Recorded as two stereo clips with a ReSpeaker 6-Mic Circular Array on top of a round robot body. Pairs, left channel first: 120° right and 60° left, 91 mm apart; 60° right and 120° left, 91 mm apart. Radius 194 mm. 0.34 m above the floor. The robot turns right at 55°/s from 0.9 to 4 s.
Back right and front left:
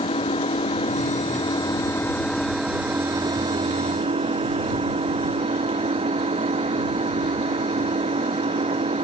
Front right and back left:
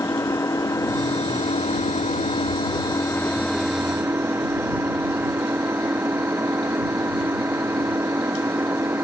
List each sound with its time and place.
0.0 s an engine running: 120° right; by 9.1 s 50° left